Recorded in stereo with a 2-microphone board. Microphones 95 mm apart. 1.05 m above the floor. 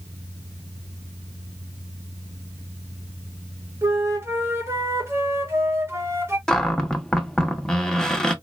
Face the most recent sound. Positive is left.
turn(degrees=5)  # may be behind; listen again after turning